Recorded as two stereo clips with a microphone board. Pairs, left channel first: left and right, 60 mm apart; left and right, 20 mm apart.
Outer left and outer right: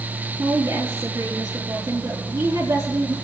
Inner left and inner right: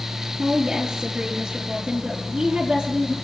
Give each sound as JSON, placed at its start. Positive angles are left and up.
{"t": 0.4, "sound": "a woman speaking", "side_deg": -80, "distance_m": 4.5}